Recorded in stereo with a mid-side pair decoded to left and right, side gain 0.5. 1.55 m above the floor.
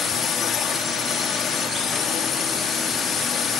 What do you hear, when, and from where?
0.0 s a drone: 55° left